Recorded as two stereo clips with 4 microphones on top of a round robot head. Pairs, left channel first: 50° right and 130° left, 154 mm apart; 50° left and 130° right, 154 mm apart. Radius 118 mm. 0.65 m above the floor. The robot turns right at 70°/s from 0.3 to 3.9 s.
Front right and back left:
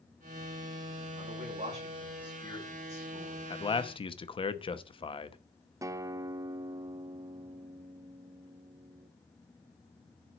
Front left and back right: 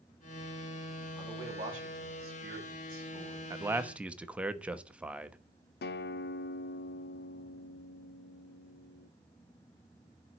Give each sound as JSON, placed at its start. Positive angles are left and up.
{"t": 1.2, "sound": "a man speaking", "azimuth_deg": 135, "distance_m": 4.5}
{"t": 3.5, "sound": "a man speaking", "azimuth_deg": -80, "distance_m": 1.1}
{"t": 5.8, "sound": "a guitar", "azimuth_deg": 60, "distance_m": 0.7}